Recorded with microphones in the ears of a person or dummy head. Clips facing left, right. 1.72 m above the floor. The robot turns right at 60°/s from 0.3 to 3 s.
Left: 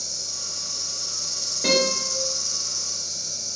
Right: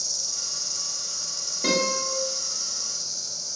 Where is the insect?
30° right, 1.0 m; by 3.6 s 130° left, 1.0 m.